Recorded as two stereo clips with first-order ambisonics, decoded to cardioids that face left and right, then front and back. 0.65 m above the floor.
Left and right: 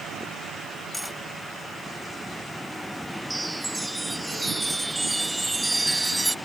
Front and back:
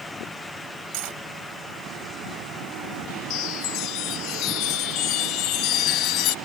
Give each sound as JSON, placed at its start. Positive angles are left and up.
{"t": 0.9, "sound": "cutlery clinking", "azimuth_deg": 175}
{"t": 3.3, "sound": "a chime", "azimuth_deg": -10}